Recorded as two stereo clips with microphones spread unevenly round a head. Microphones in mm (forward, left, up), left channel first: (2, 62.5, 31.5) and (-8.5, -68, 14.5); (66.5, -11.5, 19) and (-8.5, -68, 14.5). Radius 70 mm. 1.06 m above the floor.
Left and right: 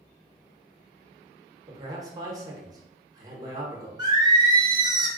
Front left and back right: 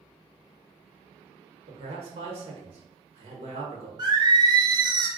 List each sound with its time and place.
1.7 s a man speaking: 155° right, 1.0 m
4.0 s singing: 135° right, 0.7 m